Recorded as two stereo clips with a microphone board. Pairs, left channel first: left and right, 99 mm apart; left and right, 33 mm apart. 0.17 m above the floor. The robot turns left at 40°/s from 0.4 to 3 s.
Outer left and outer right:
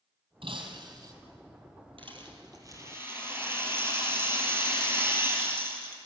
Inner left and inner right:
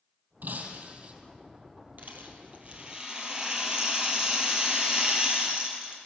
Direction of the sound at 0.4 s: 65° right (ahead or behind).